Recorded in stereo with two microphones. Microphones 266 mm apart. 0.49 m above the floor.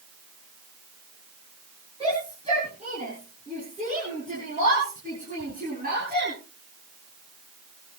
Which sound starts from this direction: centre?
A shout, at 2.0 s.